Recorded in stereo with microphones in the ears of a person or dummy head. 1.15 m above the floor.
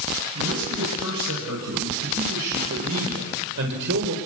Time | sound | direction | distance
0.3 | a man speaking | 85° right | 7.5 m